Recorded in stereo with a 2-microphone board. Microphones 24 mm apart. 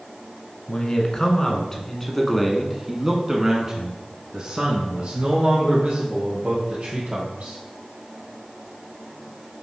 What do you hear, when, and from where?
0.7 s a man speaking: 35° left (ahead or behind), 1.6 m; by 7.6 s 60° right (ahead or behind), 3 m